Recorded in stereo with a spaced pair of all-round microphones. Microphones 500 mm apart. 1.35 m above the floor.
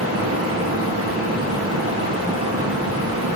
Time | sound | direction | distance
0.0 | a fan | 25° right (ahead or behind) | 1.1 m